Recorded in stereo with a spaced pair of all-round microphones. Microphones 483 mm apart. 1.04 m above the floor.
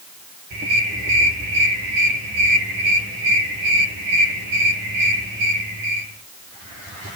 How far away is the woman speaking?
No woman speaking in this recording.